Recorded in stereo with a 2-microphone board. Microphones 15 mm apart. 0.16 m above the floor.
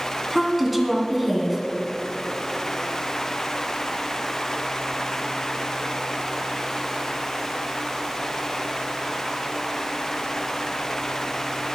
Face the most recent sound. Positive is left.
turn(degrees=-5)  # may be behind; listen again after turning